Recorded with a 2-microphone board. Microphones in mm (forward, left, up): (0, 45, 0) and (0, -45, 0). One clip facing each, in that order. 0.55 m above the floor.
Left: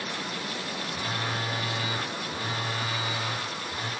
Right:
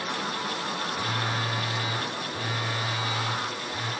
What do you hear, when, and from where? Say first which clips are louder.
0.9 s a phone buzzing: even; 15° left (ahead or behind), 2.5 m